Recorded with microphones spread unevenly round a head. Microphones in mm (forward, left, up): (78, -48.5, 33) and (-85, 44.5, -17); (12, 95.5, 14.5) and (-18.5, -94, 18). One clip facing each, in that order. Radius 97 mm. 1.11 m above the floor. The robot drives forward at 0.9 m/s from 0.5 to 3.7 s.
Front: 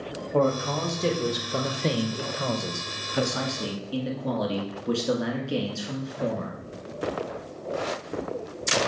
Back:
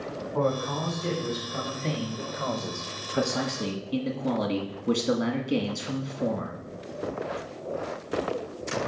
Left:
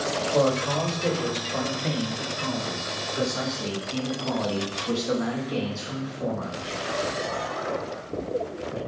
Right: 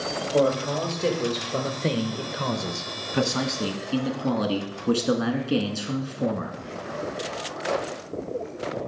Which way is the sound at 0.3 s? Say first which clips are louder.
Front 4 dB, right 2 dB; 25° right.